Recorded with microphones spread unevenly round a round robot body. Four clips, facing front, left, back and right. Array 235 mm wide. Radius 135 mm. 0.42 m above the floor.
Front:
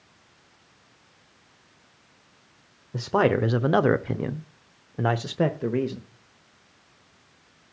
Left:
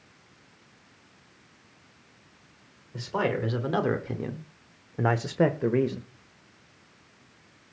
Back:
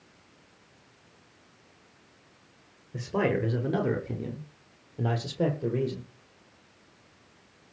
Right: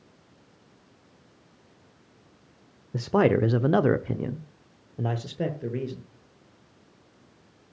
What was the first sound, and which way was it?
A man speaking, 75° right.